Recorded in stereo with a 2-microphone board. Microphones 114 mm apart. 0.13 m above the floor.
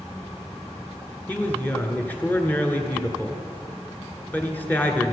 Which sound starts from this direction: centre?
A man speaking, at 1.3 s.